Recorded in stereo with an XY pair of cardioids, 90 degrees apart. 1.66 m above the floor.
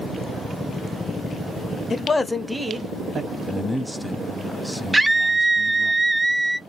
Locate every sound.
1.9 s a man speaking: 40° left, 0.7 m; by 3.3 s 55° right, 1.0 m
3.4 s a man speaking: straight ahead, 0.6 m
4.9 s a scream: 15° right, 0.6 m